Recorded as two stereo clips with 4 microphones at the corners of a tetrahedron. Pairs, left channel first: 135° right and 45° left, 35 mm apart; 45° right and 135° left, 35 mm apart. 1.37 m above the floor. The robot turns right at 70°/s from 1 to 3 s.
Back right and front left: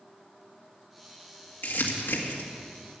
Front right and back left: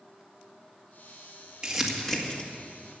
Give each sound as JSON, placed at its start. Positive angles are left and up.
{"t": 1.6, "sound": "crumpling", "azimuth_deg": -155, "distance_m": 1.7}